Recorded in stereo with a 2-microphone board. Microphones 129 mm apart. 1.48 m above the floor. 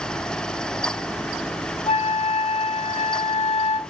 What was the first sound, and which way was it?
A flute, 55° left (ahead or behind).